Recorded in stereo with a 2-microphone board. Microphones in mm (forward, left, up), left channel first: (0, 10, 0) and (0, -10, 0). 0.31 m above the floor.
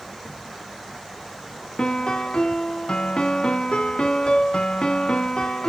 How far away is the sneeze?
No sneeze in this recording.